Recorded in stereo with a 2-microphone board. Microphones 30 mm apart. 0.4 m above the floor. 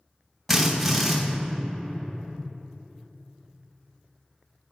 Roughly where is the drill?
Centre.